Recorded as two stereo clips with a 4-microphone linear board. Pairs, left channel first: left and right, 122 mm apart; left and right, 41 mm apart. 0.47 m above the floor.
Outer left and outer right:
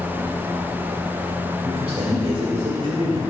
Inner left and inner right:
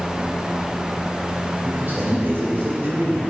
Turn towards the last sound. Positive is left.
turn(degrees=-55)  # may be behind; listen again after turning